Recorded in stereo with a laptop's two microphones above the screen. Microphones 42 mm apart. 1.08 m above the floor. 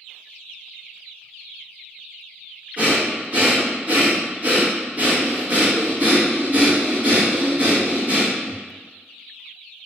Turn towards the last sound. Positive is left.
turn(degrees=-40)  # may be behind; listen again after turning